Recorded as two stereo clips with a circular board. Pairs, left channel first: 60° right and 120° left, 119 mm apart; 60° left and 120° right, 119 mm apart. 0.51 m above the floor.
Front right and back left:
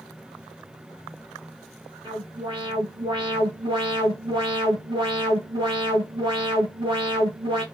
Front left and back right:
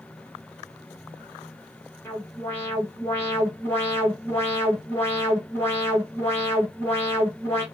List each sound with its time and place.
2.0 s an alarm: 125° left, 2 m